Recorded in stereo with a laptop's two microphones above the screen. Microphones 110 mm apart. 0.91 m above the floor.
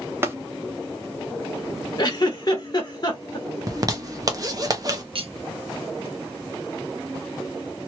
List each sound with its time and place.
0.2 s tapping: 25° right (ahead or behind), 0.9 m
2.0 s a giggle: 40° left (ahead or behind), 1.2 m
3.7 s a zipper: 35° right (ahead or behind), 0.8 m
5.2 s cutlery clinking: 60° right (ahead or behind), 0.8 m